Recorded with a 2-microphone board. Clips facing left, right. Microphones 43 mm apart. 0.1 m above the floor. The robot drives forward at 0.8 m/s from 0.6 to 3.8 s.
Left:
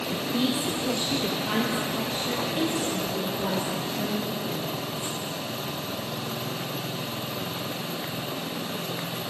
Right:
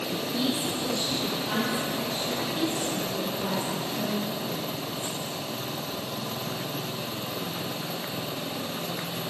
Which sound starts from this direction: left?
A woman speaking, at 0.1 s.